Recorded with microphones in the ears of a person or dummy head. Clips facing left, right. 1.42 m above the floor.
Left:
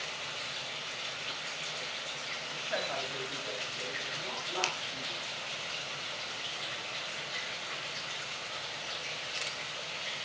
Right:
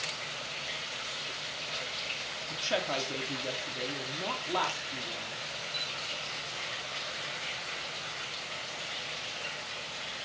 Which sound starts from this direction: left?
A finger snap, at 4.6 s.